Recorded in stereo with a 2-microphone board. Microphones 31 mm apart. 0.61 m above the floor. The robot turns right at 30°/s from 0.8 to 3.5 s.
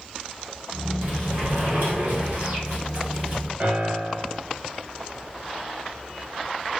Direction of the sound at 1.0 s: 120° right.